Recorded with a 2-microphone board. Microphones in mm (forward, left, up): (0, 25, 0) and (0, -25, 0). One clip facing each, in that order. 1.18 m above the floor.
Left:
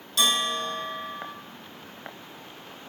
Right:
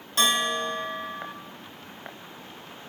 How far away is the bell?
About 0.8 m.